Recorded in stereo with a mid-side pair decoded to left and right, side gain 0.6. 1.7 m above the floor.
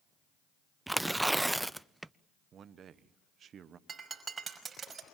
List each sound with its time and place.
0.9 s tearing paper: 5° right, 0.5 m
2.5 s a man speaking: 45° right, 1.3 m
3.9 s breaking glass: 25° right, 5.5 m